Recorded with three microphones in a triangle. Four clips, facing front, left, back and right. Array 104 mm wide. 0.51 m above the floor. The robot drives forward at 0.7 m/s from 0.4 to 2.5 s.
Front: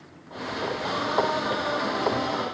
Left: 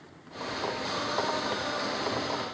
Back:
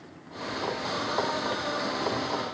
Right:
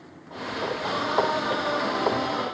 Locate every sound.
Only background noise.